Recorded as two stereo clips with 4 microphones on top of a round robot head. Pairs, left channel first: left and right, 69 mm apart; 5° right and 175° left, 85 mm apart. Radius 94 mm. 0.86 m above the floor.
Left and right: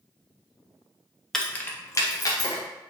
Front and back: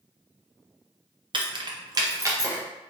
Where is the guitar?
No guitar in this recording.